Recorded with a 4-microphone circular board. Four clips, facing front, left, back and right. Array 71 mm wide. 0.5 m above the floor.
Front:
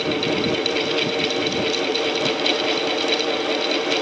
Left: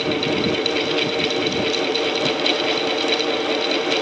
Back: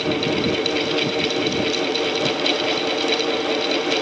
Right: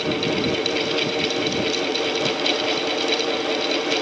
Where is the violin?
I don't hear a violin.